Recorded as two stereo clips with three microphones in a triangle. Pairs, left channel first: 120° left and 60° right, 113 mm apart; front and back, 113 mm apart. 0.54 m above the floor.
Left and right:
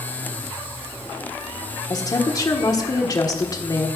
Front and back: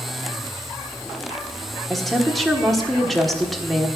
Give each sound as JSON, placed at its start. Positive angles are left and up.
{"t": 1.9, "sound": "a woman speaking", "azimuth_deg": 90, "distance_m": 1.5}